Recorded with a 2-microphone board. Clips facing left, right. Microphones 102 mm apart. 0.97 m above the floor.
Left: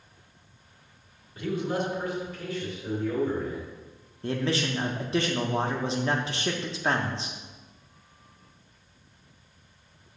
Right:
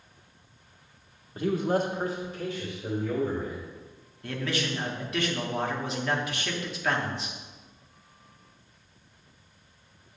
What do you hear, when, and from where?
1.4 s a man speaking: 40° right (ahead or behind), 1.1 m; by 3.7 s 10° right (ahead or behind), 3 m
4.2 s a man speaking: 30° left (ahead or behind), 0.8 m